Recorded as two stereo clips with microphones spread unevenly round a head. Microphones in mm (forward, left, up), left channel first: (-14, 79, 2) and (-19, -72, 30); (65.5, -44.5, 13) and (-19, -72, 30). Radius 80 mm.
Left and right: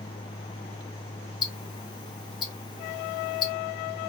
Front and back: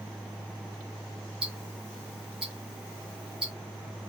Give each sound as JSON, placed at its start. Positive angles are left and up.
{"t": 1.4, "sound": "ticking", "azimuth_deg": 110, "distance_m": 0.8}